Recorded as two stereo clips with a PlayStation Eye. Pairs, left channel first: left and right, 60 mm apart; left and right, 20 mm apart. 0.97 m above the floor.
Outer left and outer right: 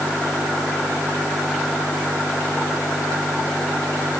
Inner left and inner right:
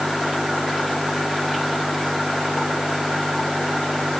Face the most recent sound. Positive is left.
No sound to turn to.